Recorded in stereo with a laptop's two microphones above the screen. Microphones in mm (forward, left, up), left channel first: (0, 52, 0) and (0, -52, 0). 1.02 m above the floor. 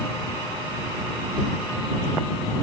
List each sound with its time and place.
Only background noise.